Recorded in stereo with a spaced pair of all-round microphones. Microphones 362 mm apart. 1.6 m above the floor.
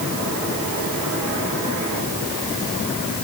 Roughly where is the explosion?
No explosion in this recording.